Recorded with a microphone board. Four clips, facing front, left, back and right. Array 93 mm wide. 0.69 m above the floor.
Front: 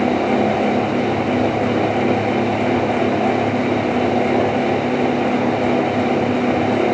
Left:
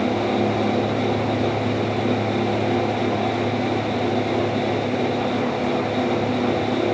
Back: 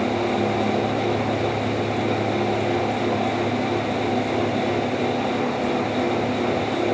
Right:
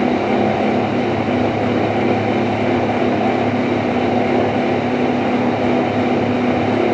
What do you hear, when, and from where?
Only background noise.